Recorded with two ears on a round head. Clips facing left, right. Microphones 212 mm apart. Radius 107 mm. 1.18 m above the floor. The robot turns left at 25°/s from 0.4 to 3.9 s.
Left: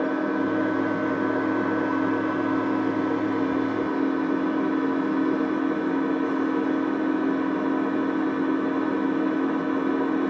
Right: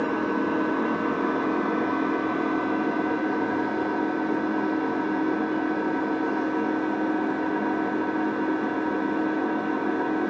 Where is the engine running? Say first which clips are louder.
Left 1 dB; 105° right, 3 m; by 10.3 s 170° left, 3 m.